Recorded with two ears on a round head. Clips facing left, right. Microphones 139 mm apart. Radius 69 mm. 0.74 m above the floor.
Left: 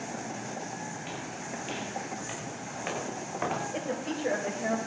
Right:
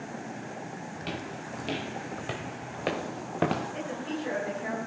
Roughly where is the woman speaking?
Left.